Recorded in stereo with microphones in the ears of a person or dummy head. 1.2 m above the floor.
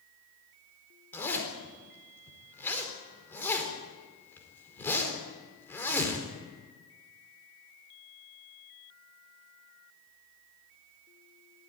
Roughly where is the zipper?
Centre.